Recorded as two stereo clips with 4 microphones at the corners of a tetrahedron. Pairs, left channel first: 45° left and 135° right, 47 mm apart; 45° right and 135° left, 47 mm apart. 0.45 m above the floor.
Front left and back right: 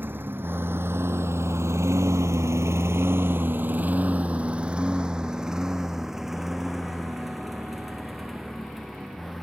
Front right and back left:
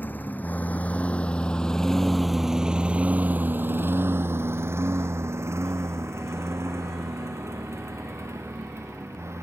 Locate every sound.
0.0 s a lawn mower: 90° right; by 9.4 s 130° left